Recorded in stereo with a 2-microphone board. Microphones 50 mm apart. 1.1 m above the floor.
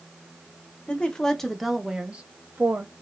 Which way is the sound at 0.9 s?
25° left (ahead or behind).